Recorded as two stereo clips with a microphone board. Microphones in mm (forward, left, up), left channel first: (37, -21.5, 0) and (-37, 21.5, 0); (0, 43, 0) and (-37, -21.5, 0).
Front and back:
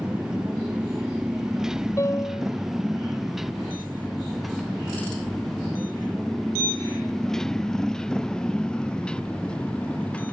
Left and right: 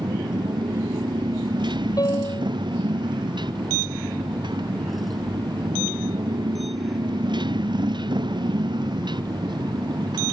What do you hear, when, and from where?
0.0 s a motorcycle: 130° right; by 10.3 s 105° right
2.0 s a piano: 25° left